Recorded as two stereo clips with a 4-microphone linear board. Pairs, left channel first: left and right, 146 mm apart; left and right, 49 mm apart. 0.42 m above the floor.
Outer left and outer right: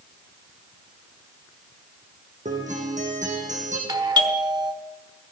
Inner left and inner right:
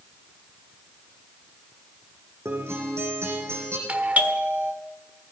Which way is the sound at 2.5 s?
60° right (ahead or behind).